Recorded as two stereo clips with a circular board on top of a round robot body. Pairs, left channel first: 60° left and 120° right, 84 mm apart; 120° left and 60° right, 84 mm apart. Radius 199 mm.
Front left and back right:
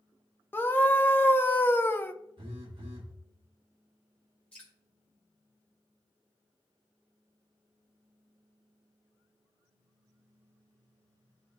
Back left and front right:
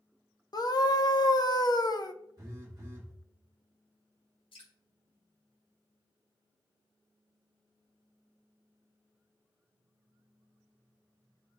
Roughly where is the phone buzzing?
Right.